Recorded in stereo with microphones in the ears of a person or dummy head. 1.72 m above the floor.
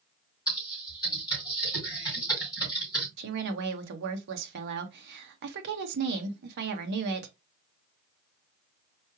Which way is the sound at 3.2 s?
55° right (ahead or behind).